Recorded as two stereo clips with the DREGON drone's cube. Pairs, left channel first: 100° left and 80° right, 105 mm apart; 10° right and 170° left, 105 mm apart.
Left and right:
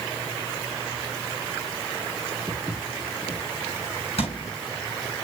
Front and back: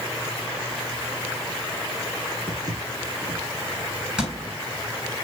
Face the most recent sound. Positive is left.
turn(degrees=85)